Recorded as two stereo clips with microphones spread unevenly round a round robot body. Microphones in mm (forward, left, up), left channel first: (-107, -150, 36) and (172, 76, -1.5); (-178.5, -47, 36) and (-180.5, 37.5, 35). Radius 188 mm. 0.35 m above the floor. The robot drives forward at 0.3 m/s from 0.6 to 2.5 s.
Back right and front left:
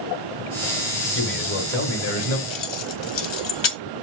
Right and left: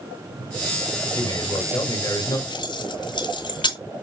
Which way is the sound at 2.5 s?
105° right.